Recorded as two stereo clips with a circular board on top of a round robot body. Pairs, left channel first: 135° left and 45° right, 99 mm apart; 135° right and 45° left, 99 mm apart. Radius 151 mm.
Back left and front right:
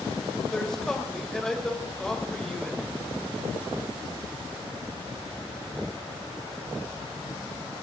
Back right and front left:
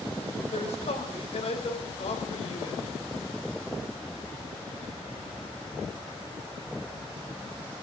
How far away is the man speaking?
About 3 m.